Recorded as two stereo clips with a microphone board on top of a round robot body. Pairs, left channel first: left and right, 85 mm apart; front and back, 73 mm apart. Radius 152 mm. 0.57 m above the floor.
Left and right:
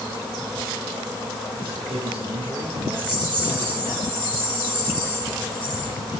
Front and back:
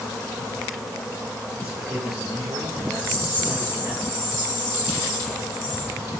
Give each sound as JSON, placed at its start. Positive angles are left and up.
{"t": 1.6, "sound": "a man speaking", "azimuth_deg": -115, "distance_m": 9.0}
{"t": 2.9, "sound": "a rattle", "azimuth_deg": -120, "distance_m": 9.5}